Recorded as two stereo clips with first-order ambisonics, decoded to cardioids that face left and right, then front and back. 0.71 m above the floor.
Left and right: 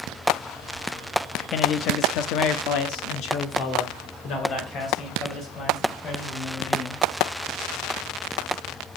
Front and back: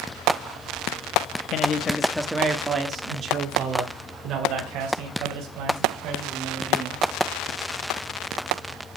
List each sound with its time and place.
1.5 s a man speaking: 45° left, 0.9 m; by 7.0 s 140° left, 4.5 m